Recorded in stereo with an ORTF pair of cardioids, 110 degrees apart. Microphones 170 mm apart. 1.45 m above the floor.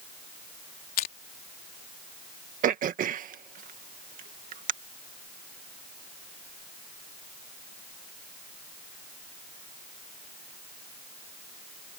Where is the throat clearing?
55° right.